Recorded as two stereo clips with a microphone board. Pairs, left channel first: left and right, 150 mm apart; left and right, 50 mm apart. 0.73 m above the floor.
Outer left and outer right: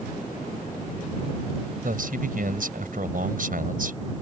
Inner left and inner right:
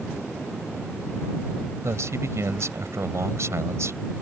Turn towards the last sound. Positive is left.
turn(degrees=-70)  # may be behind; listen again after turning